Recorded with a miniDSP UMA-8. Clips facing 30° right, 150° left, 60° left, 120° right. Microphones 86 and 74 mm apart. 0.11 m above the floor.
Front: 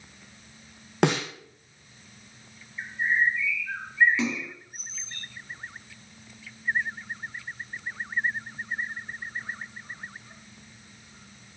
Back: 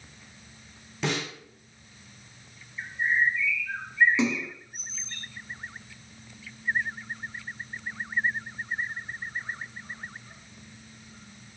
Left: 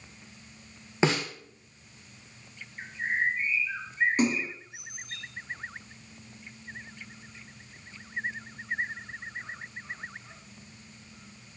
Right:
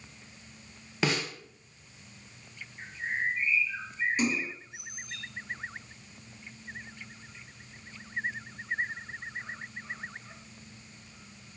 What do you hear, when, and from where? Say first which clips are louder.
1.0 s a snare drum: front 7 dB, left 4 dB; 5° right, 1.8 m
2.8 s a bird: even, left 4 dB; 45° left, 1.5 m
4.2 s a splash: back 3 dB, left 2 dB; 90° left, 2 m